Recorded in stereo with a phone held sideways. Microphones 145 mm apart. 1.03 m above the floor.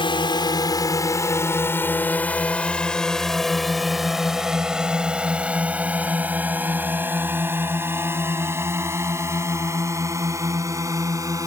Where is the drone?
35° left (ahead or behind); by 11.5 s 20° right (ahead or behind).